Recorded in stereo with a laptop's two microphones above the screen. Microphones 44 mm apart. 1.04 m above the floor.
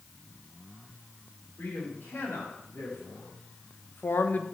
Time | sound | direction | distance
1.6 | a man speaking | 80° left | 3 m